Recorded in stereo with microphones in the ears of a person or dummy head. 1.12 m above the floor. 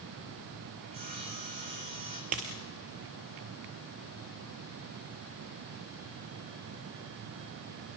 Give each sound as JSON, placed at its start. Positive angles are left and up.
{"t": 0.8, "sound": "sawing", "side_deg": -40, "distance_m": 2.5}
{"t": 2.3, "sound": "a dropped coin", "side_deg": -35, "distance_m": 1.4}